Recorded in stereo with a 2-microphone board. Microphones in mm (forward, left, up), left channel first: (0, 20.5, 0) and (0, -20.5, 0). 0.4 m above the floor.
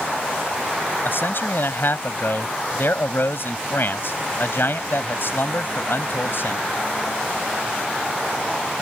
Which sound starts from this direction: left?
A man speaking, at 1.1 s.